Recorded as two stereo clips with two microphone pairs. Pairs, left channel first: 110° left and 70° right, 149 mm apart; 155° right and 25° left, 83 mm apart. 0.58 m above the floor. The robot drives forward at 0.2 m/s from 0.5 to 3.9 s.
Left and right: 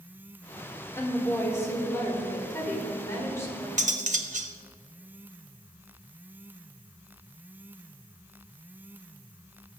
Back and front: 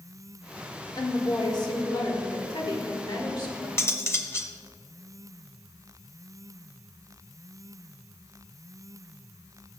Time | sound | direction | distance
1.0 | a woman speaking | 175° right | 1.4 m
3.8 | cutlery clinking | 95° right | 0.7 m